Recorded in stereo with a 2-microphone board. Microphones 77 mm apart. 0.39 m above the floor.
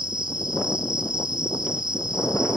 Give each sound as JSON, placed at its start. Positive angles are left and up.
{"t": 0.0, "sound": "an insect", "side_deg": -80, "distance_m": 1.8}